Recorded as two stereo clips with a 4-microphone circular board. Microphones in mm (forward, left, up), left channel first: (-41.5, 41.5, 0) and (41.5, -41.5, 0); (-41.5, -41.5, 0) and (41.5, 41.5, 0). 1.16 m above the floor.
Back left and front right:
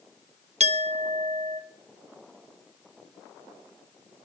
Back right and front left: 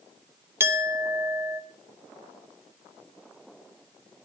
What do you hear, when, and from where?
0.6 s a clink: 25° right, 0.8 m